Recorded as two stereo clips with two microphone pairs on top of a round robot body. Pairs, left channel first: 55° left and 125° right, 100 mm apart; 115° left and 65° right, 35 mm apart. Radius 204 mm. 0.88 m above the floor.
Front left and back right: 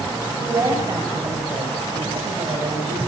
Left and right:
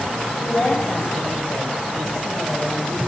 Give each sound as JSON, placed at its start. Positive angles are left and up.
{"t": 0.4, "sound": "a woman speaking", "azimuth_deg": 175, "distance_m": 6.0}